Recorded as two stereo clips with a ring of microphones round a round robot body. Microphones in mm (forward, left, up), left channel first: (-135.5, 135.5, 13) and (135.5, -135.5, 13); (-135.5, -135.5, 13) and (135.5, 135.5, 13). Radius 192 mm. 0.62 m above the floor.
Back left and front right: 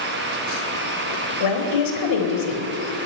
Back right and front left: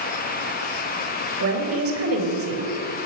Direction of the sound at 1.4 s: 100° left.